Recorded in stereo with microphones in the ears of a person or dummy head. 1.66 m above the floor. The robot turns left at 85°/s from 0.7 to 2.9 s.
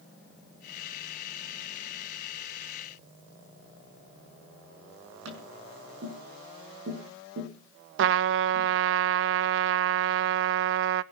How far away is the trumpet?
About 0.6 m.